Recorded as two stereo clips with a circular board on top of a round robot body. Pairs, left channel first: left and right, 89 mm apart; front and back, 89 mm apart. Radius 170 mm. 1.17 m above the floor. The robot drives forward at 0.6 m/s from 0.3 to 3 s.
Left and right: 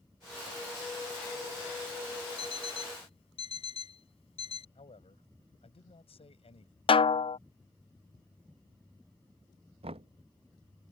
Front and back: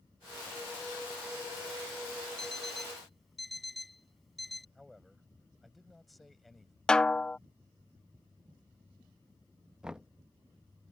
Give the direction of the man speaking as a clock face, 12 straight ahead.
9 o'clock.